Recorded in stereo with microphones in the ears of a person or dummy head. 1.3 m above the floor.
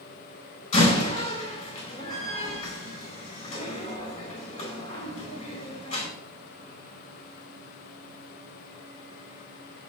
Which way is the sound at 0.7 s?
40° left (ahead or behind).